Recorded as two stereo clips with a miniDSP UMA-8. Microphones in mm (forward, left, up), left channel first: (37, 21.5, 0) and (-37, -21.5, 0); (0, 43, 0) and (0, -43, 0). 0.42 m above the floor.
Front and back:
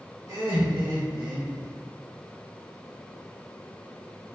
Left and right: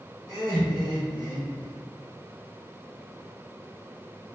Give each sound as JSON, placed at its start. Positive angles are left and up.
{"t": 0.3, "sound": "laughter", "azimuth_deg": 175, "distance_m": 1.6}